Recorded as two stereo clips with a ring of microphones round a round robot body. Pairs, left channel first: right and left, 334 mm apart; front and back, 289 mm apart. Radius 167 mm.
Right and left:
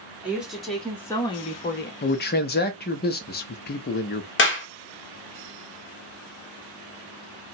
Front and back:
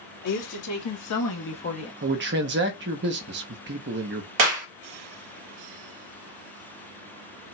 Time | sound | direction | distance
0.2 | a woman speaking | 5° left | 2 m
2.0 | a man speaking | 140° right | 0.7 m
4.4 | a clap | 150° right | 1.1 m